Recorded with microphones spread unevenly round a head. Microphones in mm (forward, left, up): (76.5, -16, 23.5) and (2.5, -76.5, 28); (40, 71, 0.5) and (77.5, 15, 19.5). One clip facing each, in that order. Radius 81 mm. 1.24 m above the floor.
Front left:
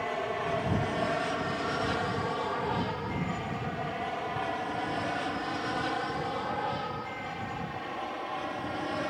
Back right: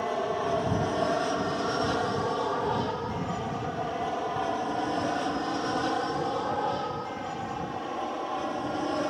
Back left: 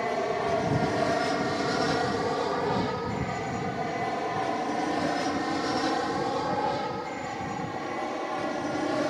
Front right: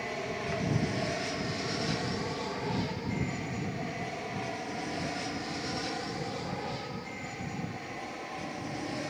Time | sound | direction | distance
0.0 | an aircraft | 150° left | ?